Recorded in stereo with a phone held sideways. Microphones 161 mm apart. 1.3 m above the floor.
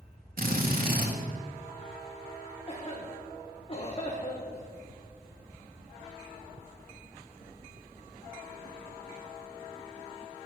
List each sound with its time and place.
0.4 s a drill: 70° right (ahead or behind), 1.8 m
2.7 s a cough: 35° left (ahead or behind), 1.5 m